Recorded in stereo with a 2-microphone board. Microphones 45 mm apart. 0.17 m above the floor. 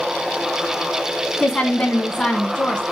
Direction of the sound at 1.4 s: 20° left (ahead or behind).